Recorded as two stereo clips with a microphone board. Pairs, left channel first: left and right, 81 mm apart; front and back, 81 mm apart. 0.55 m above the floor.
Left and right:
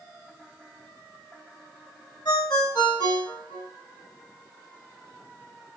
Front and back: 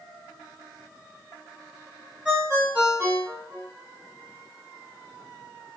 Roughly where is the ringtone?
Left.